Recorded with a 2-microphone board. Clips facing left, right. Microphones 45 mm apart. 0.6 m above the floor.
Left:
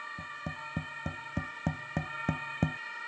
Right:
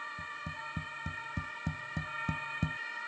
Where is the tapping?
55° left (ahead or behind).